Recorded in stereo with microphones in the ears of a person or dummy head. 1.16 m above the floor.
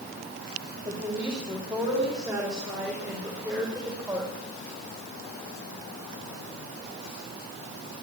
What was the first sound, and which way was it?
A woman speaking, 10° right (ahead or behind).